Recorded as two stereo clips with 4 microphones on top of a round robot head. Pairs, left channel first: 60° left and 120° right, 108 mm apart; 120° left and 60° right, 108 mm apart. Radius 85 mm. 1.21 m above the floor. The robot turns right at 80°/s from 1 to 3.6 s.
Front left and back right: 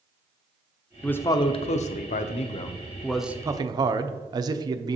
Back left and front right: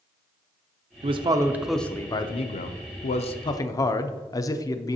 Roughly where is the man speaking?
Ahead right.